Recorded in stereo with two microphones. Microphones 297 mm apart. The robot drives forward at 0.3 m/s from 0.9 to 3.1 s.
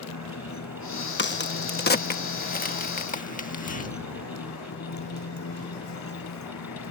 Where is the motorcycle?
65° left (ahead or behind).